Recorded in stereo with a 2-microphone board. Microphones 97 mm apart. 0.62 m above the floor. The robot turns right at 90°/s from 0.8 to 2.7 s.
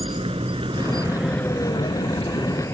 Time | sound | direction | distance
0.0 | a vehicle | 80° right | ?